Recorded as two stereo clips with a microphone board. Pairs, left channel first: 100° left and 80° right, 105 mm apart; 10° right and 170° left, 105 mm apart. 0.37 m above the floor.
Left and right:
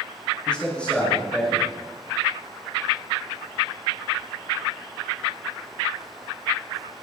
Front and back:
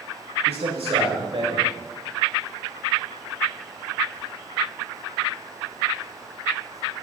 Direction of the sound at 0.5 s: Straight behind.